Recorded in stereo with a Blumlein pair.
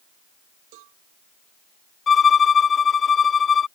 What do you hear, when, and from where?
0.7 s a cowbell: 45° right
2.1 s a violin: 20° left